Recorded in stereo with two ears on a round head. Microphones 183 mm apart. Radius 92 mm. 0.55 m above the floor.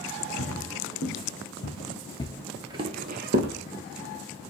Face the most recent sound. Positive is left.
turn(degrees=-55)  # may be behind; listen again after turning